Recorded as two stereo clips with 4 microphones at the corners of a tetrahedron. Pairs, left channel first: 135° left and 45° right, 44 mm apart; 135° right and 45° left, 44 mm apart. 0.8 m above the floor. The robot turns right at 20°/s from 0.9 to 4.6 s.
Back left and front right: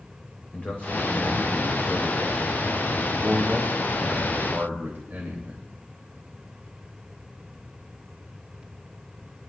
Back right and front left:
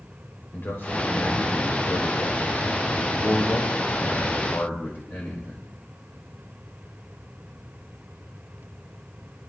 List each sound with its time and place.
0.5 s a man speaking: 170° right, 3.5 m; by 5.6 s 95° right, 3.5 m